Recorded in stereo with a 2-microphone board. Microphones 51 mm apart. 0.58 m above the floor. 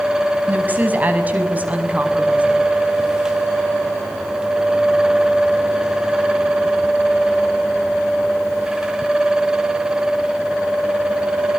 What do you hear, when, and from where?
0.5 s a woman speaking: 35° right (ahead or behind), 5 m; by 2.6 s 30° right (ahead or behind), 6 m